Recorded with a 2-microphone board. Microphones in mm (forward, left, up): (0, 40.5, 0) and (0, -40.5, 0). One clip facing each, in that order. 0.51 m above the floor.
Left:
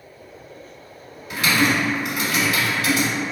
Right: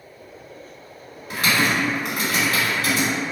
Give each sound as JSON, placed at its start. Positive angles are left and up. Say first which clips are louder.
{"t": 1.3, "sound": "typing on a keyboard", "louder": "left 1 dB", "side_deg": -40, "distance_m": 1.6}